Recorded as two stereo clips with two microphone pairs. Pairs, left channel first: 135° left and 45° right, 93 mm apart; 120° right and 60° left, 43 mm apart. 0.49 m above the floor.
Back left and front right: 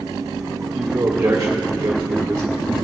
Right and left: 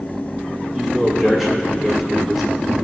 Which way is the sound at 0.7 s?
15° right.